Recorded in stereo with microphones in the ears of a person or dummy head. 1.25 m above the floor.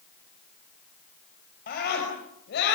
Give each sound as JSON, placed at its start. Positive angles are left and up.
{"t": 1.7, "sound": "a scream", "side_deg": 55, "distance_m": 6.0}